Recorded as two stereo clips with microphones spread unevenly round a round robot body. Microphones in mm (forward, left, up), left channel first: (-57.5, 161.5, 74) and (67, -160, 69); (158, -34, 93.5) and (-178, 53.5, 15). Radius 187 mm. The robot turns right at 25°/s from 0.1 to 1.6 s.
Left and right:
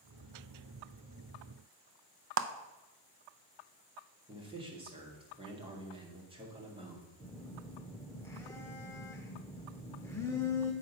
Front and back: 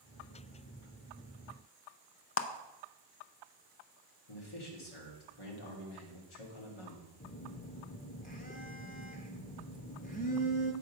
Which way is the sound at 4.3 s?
5° left.